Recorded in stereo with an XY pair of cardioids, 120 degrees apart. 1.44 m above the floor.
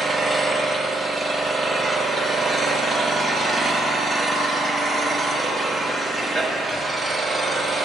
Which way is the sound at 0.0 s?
Straight ahead.